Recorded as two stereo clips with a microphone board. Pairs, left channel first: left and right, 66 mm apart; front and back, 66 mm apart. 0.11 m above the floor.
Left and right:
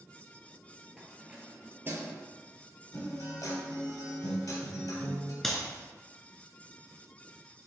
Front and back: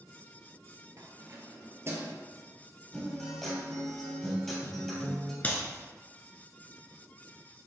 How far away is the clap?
About 1.1 m.